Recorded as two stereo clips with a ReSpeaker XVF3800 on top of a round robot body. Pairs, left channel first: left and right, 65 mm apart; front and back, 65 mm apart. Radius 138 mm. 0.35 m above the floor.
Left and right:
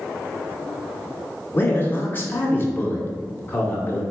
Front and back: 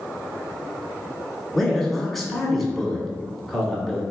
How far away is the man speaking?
About 1.4 m.